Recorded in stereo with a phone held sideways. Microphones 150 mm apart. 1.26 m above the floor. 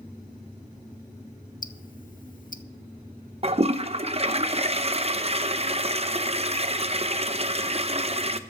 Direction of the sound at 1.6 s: 65° left (ahead or behind).